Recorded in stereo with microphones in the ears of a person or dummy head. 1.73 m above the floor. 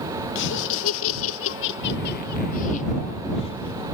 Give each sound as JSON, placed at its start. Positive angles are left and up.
{"t": 0.3, "sound": "laughter", "side_deg": 65}